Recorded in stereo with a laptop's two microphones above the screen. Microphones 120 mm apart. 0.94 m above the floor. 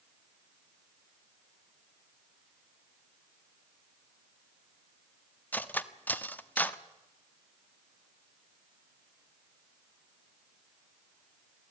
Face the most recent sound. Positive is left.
turn(degrees=15)  # may be behind; listen again after turning